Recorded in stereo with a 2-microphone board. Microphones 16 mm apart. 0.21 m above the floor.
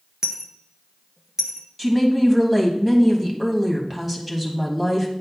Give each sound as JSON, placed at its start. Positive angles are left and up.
{"t": 0.2, "sound": "a dropped coin", "side_deg": -35, "distance_m": 1.0}
{"t": 1.8, "sound": "a woman speaking", "side_deg": -15, "distance_m": 1.4}